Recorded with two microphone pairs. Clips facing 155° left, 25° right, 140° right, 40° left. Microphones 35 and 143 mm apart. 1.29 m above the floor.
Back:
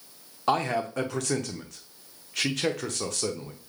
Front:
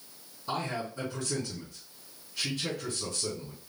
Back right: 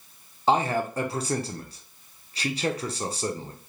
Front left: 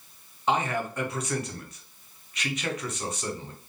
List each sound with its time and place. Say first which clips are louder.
0.5 s a man speaking: back 8 dB, back right 4 dB; 165° left, 0.6 m